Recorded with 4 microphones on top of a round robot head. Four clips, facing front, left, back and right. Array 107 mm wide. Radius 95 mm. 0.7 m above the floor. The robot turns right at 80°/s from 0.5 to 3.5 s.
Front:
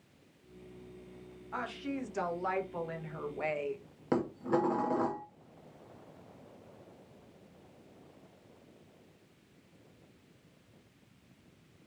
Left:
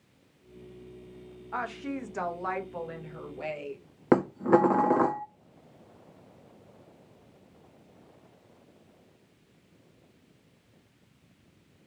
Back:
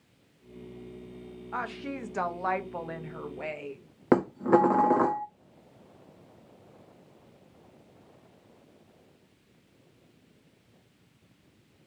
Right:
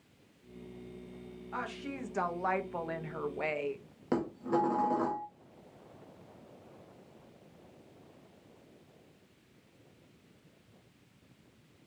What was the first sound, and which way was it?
A woman speaking, 125° left.